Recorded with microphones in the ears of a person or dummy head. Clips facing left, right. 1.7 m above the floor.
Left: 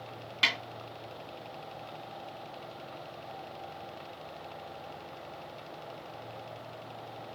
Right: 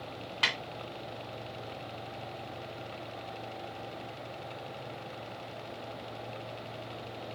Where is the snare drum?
15° left (ahead or behind), 2.5 m.